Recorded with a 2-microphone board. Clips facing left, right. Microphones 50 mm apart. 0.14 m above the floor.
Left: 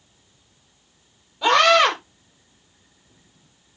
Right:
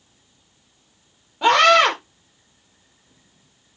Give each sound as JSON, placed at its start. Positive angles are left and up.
{"t": 1.4, "sound": "a scream", "side_deg": -45, "distance_m": 5.0}